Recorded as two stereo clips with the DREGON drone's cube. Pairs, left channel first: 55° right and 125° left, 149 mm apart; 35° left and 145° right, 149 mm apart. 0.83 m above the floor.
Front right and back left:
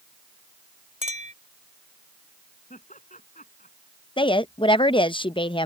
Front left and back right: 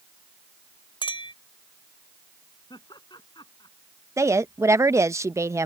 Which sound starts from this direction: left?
A clink, at 1.0 s.